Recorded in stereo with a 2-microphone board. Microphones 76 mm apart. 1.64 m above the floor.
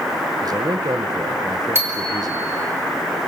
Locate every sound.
0.4 s a man speaking: 55° right (ahead or behind), 1.5 m
1.8 s a bicycle bell: 35° right (ahead or behind), 4 m